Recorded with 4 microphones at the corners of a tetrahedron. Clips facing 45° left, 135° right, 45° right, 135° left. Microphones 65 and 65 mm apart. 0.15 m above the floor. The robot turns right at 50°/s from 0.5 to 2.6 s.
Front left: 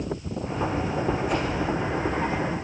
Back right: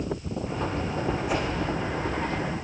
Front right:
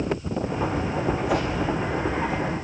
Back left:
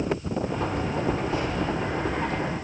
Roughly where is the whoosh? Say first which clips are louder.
Front left 1 dB, front right 4 dB; ahead right.